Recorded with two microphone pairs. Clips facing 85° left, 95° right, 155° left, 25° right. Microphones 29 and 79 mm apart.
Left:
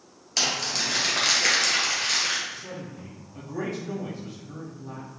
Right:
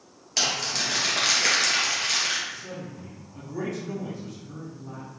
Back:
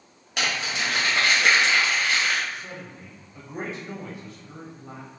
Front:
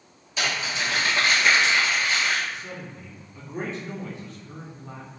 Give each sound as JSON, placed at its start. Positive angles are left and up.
{"t": 0.4, "sound": "crumpling", "azimuth_deg": 175, "distance_m": 1.8}
{"t": 2.5, "sound": "a man speaking", "azimuth_deg": 105, "distance_m": 1.1}